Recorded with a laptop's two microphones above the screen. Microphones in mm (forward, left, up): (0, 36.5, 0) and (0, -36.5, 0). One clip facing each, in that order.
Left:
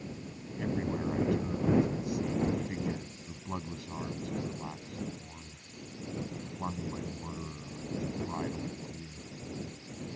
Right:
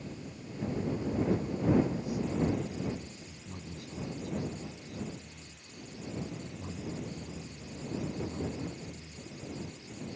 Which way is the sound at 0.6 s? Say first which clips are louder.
Left 1 dB; 80° left.